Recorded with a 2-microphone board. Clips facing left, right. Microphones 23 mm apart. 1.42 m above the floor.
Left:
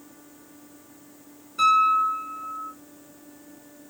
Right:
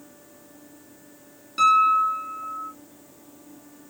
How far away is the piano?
About 1.8 m.